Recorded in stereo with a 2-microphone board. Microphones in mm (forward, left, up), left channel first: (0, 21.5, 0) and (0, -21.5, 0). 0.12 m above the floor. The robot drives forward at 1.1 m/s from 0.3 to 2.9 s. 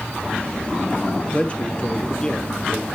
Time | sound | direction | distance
1.3 | a man speaking | 30° left (ahead or behind) | 1.5 m